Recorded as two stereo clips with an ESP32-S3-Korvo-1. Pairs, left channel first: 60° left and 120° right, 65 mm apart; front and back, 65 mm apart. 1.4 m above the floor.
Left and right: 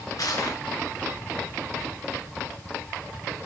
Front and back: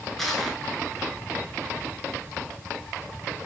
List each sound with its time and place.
0.2 s crushing: 85° left, 4 m